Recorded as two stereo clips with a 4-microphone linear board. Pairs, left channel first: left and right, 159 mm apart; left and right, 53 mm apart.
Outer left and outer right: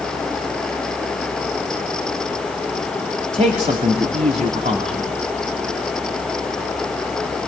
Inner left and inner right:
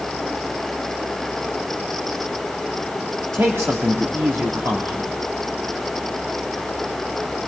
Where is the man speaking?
50° right (ahead or behind), 2.5 m.